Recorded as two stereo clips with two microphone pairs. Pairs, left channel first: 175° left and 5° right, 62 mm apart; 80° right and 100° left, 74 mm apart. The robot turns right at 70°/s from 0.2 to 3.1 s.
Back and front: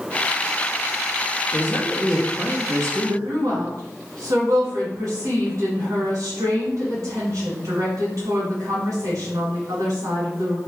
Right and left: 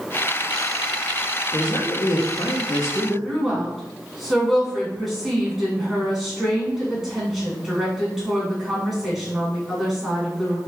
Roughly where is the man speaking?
Behind right.